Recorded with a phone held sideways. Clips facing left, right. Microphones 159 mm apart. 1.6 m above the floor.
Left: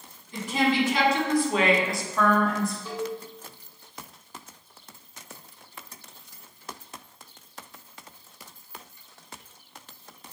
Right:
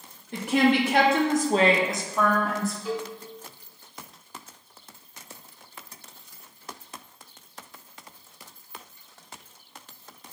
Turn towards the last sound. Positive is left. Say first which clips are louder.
# right 1 dB
turn(degrees=-15)  # may be behind; listen again after turning